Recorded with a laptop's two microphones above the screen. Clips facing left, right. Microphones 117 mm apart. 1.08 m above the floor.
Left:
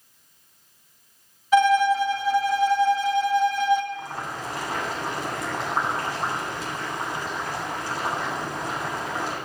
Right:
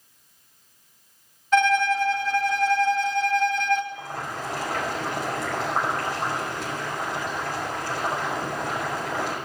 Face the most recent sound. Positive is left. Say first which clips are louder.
# even
turn(degrees=-60)  # may be behind; listen again after turning